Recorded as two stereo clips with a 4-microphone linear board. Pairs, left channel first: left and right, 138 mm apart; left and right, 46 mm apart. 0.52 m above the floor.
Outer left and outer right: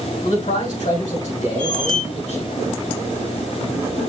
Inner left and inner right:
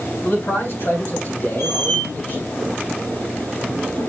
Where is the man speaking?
65° left (ahead or behind), 6 m; by 2.5 s 50° left (ahead or behind), 4.5 m.